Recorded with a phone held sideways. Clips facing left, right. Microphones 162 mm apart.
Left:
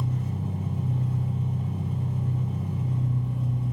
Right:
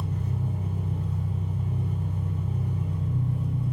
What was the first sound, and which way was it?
An engine running, 85° left.